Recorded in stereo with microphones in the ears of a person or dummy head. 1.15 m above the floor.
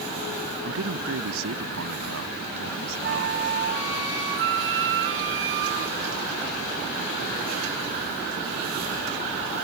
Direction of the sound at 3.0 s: 70° right (ahead or behind).